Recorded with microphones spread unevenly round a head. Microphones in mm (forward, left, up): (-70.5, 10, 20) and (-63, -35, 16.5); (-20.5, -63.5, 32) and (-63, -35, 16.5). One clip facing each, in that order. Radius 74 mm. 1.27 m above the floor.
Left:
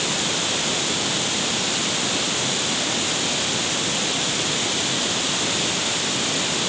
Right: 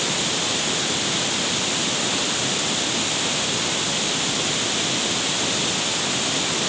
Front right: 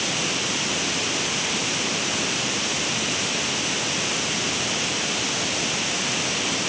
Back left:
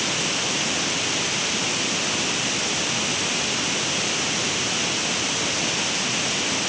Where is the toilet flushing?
No toilet flushing in this recording.